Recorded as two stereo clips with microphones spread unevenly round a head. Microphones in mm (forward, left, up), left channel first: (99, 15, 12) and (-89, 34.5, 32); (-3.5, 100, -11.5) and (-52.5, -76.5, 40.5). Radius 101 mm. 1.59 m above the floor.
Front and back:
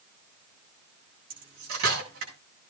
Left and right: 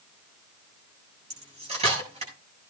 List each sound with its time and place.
1.3 s cutlery clinking: 160° right, 7.5 m